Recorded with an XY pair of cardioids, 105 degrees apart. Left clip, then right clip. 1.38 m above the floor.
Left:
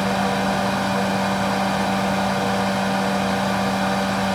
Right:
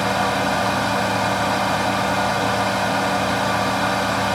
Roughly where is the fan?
Ahead.